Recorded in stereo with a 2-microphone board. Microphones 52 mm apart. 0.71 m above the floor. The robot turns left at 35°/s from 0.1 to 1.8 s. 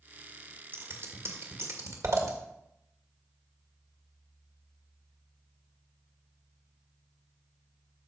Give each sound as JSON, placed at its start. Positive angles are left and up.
{"t": 0.7, "sound": "scissors", "side_deg": -45, "distance_m": 1.9}